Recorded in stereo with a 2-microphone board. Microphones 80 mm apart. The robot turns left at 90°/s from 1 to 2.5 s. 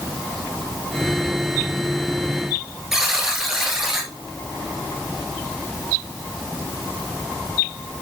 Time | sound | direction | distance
2.9 | a buzzer | 5° right (ahead or behind) | 1.8 m